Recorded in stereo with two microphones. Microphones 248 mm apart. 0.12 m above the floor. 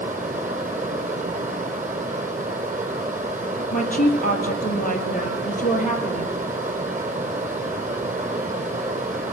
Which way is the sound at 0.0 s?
30° right (ahead or behind).